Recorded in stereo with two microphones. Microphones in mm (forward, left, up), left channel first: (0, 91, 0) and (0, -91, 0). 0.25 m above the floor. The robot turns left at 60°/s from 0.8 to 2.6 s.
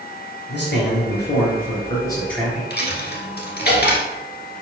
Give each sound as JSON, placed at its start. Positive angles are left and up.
{"t": 0.5, "sound": "a man speaking", "azimuth_deg": 100, "distance_m": 3.5}
{"t": 2.7, "sound": "a dropped coin", "side_deg": 65, "distance_m": 1.6}